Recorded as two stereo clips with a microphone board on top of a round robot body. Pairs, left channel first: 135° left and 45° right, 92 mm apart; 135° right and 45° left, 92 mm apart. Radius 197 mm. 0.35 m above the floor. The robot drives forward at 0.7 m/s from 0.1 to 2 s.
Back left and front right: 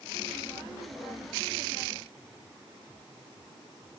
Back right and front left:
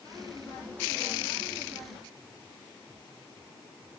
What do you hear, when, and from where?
Only background noise.